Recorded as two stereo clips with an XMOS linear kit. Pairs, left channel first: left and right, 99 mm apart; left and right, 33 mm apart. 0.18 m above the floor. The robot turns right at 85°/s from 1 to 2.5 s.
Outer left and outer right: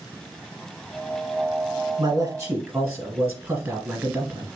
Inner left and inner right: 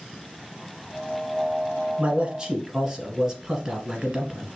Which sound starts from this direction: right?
A man speaking, at 2.0 s.